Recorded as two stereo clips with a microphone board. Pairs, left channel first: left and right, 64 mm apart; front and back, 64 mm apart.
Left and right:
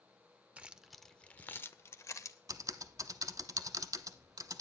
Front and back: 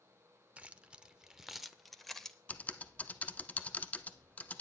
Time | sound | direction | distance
0.6 | keys jangling | 135° right | 0.6 m
2.5 | typing on a keyboard | 65° right | 0.7 m